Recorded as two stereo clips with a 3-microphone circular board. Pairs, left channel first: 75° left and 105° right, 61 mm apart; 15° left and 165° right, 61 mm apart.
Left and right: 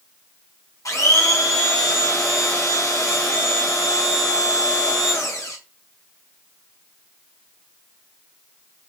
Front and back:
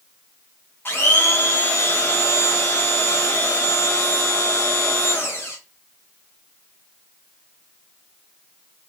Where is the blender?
60° left, 1.4 m.